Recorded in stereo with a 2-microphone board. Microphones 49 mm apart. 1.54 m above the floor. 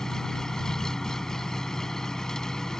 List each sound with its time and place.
0.0 s an engine running: 10° left (ahead or behind)